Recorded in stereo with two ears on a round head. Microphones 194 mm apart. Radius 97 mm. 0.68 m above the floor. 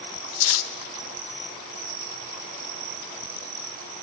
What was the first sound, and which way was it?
Cutlery clinking, 70° left (ahead or behind).